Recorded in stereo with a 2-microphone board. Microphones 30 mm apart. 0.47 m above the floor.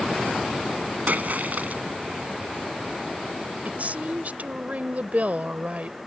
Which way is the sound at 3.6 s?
55° right (ahead or behind).